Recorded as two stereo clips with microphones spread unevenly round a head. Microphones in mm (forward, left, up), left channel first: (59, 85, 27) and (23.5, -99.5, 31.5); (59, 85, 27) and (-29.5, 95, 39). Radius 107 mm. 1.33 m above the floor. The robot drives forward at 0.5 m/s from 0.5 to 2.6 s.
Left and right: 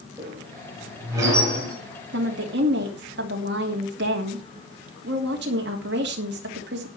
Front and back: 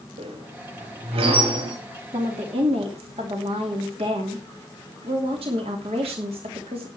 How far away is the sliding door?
I don't hear a sliding door.